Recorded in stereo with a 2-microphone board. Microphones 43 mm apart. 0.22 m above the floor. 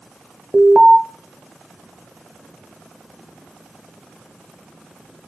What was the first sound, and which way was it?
An alarm, 20° right (ahead or behind).